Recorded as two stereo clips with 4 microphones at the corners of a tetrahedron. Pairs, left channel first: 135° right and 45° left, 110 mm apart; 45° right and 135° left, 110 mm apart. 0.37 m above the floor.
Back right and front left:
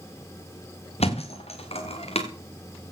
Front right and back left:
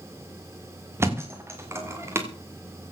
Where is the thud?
155° right, 4.5 m.